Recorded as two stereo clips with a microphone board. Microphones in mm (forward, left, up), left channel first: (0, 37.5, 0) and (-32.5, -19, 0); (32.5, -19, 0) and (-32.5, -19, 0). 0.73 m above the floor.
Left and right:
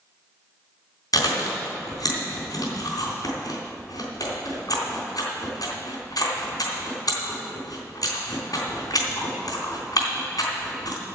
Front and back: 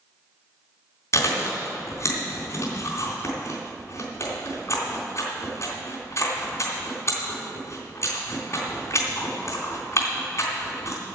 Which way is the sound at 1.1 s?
40° left.